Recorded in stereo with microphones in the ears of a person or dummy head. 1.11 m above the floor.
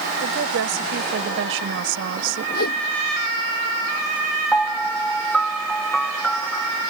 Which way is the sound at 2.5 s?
50° left (ahead or behind).